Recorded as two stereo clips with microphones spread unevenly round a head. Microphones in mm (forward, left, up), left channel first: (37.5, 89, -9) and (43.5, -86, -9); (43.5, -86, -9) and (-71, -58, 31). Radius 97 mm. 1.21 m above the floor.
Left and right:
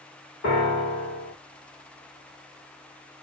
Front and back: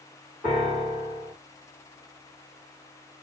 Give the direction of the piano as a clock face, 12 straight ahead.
10 o'clock.